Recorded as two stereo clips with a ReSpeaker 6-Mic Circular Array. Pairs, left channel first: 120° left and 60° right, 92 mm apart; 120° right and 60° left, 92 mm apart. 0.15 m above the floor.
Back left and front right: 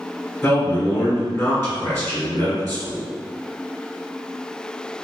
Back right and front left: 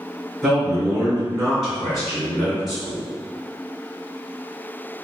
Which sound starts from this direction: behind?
A man speaking, at 0.4 s.